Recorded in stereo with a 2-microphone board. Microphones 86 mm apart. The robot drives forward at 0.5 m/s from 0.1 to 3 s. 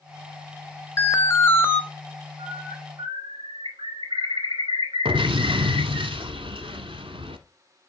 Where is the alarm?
30° left (ahead or behind), 0.7 m; by 1.8 s 25° left (ahead or behind), 0.9 m.